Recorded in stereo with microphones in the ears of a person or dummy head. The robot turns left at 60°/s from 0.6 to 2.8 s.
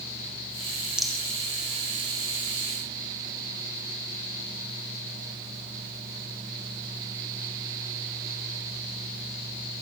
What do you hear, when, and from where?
1.0 s a rattle: centre (ahead or behind), 1.4 m; by 1.2 s 10° left (ahead or behind), 1.4 m